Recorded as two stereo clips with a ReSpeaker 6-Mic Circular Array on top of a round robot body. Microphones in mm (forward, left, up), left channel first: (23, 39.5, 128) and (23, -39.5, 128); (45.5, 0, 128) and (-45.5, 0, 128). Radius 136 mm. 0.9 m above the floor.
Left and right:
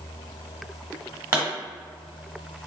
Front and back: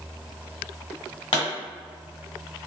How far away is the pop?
About 0.9 m.